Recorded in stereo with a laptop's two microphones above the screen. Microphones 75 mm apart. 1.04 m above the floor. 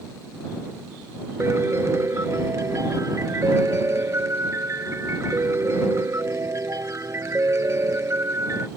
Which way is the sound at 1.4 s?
40° right (ahead or behind).